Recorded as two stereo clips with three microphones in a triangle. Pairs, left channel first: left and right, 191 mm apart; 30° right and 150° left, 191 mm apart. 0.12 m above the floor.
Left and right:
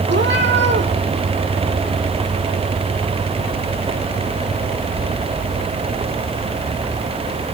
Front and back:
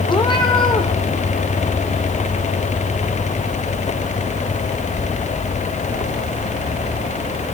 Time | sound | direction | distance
0.1 | a cat meowing | 95° right | 2.0 m